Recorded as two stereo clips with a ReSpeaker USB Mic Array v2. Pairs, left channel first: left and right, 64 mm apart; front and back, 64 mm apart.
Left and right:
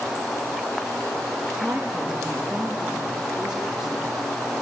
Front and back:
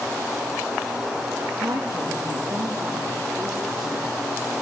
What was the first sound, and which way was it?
A woman speaking, 165° right.